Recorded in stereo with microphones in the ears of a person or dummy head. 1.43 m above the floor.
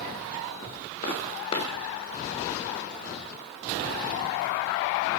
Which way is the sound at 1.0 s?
35° left (ahead or behind).